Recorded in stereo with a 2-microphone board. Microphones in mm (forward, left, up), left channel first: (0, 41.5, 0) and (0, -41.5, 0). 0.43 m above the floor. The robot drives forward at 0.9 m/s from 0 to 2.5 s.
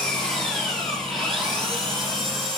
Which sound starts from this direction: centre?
An engine running, at 0.0 s.